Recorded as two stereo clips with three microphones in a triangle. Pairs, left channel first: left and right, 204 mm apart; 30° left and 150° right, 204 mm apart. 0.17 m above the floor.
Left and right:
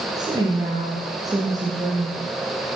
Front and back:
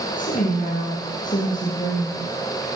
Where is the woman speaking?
20° right, 3.5 m.